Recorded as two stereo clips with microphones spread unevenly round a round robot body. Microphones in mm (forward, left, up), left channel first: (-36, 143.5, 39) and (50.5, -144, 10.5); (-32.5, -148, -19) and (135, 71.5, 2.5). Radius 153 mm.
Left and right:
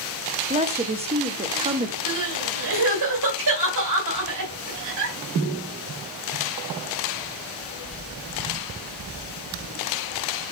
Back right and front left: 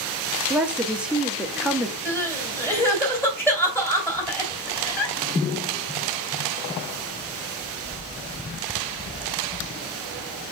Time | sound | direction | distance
0.5 | a woman speaking | 40° right | 0.9 m
2.0 | crying | 45° right | 3 m